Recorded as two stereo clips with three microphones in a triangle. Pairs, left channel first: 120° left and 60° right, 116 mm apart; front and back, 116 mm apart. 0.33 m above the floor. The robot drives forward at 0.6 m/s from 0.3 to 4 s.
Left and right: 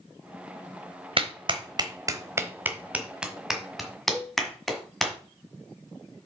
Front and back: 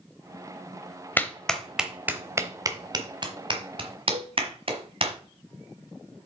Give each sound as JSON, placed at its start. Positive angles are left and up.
{"t": 1.2, "sound": "a clap", "azimuth_deg": -70, "distance_m": 1.0}
{"t": 4.1, "sound": "a cowbell", "azimuth_deg": -145, "distance_m": 5.0}